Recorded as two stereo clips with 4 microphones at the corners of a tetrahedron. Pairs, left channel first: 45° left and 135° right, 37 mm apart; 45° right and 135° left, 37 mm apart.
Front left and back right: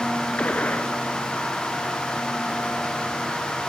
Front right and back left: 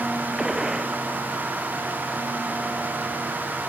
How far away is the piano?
I don't hear a piano.